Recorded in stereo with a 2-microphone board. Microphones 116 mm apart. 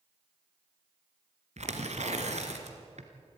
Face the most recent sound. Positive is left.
turn(degrees=-75)  # may be behind; listen again after turning